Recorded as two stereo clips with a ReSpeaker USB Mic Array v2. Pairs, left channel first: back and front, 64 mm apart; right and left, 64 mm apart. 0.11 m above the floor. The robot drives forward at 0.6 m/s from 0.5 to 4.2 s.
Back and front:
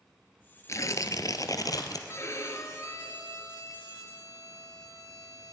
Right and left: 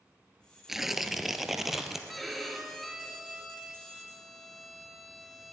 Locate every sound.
0.7 s tearing paper: 175° left, 0.9 m
2.1 s a violin: straight behind, 1.9 m